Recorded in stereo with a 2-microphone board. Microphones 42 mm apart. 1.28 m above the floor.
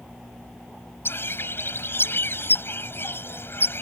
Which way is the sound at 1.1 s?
65° left (ahead or behind).